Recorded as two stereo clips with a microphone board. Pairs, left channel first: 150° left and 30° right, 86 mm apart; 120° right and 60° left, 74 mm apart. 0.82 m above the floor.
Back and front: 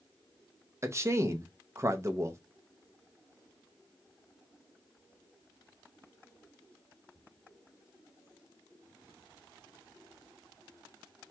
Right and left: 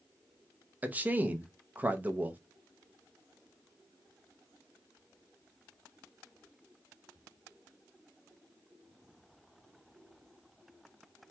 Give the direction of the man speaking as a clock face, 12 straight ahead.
12 o'clock.